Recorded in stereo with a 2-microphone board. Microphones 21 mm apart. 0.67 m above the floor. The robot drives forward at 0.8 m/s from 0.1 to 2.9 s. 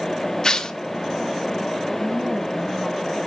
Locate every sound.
0.4 s tearing paper: 30° left (ahead or behind), 1.1 m; by 0.8 s 35° left (ahead or behind), 1.0 m
2.0 s a woman speaking: 35° right (ahead or behind), 5 m; by 3.2 s 40° right (ahead or behind), 4.5 m